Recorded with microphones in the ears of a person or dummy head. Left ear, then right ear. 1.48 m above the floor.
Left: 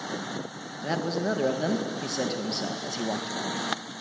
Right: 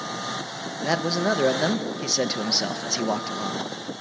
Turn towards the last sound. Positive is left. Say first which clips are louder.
# right 5 dB
turn(degrees=-25)  # may be behind; listen again after turning